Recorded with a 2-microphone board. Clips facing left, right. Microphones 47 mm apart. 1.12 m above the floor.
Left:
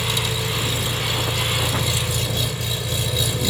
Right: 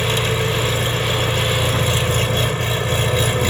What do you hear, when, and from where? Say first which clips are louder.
0.0 s an engine running: right 5 dB; 45° right (ahead or behind)